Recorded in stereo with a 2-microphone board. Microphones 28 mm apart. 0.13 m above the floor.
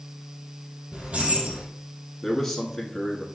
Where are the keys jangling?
55° right (ahead or behind), 2 m.